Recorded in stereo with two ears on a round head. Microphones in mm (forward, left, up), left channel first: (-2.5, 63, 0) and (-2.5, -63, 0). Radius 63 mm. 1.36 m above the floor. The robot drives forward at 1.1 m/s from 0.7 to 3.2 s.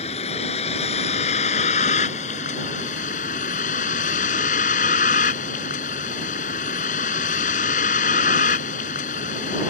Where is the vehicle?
45° left (ahead or behind); by 9.7 s 60° left (ahead or behind).